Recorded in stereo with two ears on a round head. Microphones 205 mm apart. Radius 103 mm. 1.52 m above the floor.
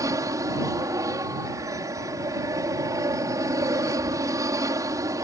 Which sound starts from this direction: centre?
An aircraft, at 0.0 s.